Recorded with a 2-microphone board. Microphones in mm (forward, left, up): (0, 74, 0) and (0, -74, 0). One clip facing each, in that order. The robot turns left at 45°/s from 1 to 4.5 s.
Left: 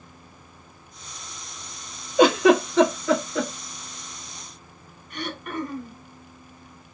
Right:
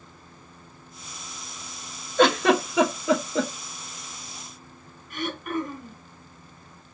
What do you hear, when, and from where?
2.2 s a giggle: 10° left (ahead or behind), 0.9 m; by 3.5 s 35° right (ahead or behind), 0.9 m
5.1 s throat clearing: 5° right (ahead or behind), 1.0 m